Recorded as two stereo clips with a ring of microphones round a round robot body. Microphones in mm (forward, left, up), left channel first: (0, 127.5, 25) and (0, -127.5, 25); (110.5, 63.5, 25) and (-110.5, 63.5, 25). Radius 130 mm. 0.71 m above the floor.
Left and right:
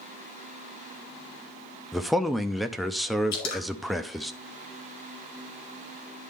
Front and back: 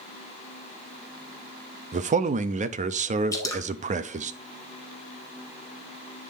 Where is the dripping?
75° left, 2 m.